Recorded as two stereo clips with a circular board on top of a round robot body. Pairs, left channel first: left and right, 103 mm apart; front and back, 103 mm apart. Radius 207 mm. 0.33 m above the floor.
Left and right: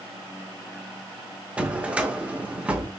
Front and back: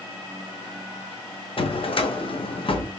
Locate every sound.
1.6 s a drawer: 15° right, 0.8 m